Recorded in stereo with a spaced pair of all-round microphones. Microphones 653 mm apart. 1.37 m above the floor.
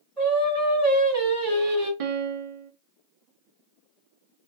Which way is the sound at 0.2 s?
10° left (ahead or behind).